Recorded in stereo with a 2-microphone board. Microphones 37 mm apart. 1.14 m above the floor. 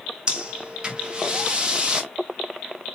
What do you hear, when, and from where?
0.3 s breathing: 25° right (ahead or behind), 1.1 m